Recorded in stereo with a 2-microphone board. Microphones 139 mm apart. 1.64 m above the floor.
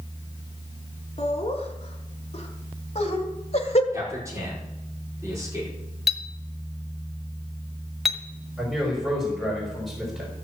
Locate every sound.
1.2 s laughter: 45° left (ahead or behind), 4 m
3.9 s a man speaking: 20° right (ahead or behind), 5.5 m
6.1 s a clink: centre (ahead or behind), 1.4 m
8.6 s a man speaking: 5° right (ahead or behind), 5.5 m